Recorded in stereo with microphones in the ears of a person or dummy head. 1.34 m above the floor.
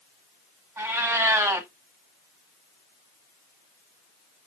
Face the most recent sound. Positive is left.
turn(degrees=-15)  # may be behind; listen again after turning